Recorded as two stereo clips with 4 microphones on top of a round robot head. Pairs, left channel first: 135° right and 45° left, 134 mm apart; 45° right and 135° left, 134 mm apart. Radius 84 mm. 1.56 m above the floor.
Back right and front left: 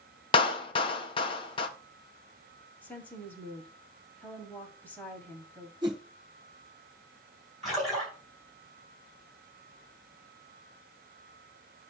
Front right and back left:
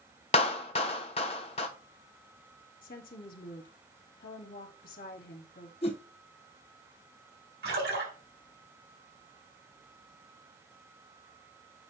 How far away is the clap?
About 0.7 m.